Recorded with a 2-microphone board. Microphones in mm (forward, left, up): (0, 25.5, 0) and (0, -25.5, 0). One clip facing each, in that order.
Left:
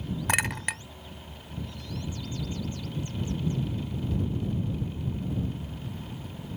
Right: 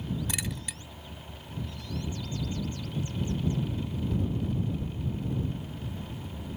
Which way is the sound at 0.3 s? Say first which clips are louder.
Left 9 dB; 65° left (ahead or behind).